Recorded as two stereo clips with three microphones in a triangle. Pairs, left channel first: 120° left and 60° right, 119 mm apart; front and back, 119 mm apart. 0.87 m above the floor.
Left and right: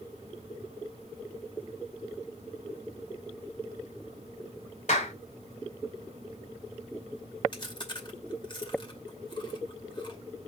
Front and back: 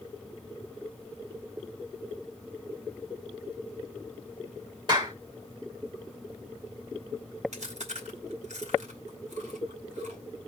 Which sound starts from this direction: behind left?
A clap, at 4.9 s.